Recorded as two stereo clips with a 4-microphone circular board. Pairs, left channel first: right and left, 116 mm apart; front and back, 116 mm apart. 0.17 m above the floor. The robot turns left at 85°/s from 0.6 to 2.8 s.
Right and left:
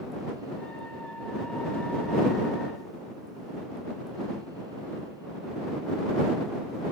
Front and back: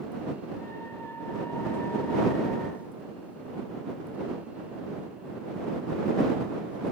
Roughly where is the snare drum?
I don't hear a snare drum.